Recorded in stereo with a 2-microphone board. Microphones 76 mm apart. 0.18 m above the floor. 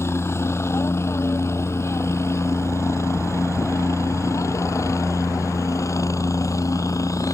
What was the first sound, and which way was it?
A helicopter, 35° left (ahead or behind).